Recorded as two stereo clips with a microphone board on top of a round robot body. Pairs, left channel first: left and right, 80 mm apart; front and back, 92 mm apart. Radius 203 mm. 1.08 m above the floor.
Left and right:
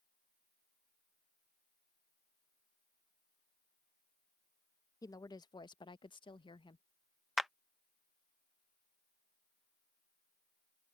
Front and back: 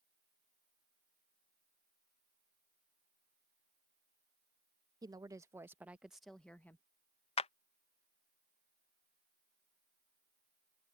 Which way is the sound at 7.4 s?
Straight ahead.